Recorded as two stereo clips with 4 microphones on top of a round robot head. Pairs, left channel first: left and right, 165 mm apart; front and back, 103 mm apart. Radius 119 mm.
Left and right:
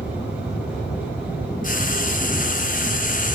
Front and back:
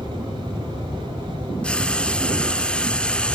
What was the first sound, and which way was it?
Frying, 80° left.